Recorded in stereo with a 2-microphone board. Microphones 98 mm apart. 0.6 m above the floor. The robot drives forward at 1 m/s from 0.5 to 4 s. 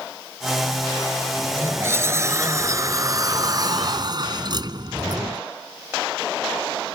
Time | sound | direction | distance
1.4 | a sliding door | 25° right (ahead or behind) | ?